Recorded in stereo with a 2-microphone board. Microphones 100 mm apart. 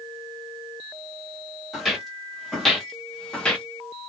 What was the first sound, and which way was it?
Footsteps, centre (ahead or behind).